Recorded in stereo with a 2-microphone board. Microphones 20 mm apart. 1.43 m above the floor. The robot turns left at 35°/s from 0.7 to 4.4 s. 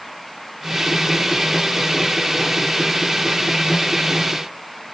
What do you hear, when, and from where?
Only background noise.